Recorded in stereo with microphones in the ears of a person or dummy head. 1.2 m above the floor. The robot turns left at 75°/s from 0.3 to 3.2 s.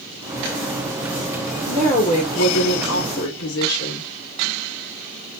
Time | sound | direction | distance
1.6 | a woman speaking | 175° right | 1.1 m